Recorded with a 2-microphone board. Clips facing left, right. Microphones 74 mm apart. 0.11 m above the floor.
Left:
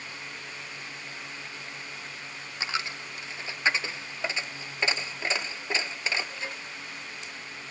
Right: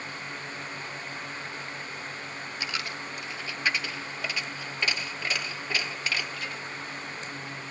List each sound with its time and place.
2.6 s a dropped coin: 25° left (ahead or behind), 0.7 m